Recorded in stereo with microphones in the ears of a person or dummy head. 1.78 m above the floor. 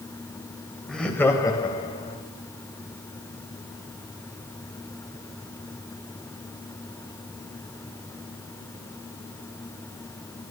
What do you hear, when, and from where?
0.9 s laughter: centre (ahead or behind), 1.2 m; by 2.2 s 30° left (ahead or behind), 1.8 m